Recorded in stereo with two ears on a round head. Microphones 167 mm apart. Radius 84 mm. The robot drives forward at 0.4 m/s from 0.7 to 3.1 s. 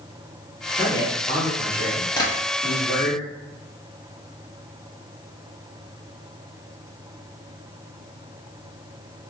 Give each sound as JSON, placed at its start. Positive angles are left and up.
{"t": 0.8, "sound": "a man speaking", "side_deg": 20, "distance_m": 1.4}
{"t": 2.2, "sound": "tapping", "side_deg": 20, "distance_m": 0.9}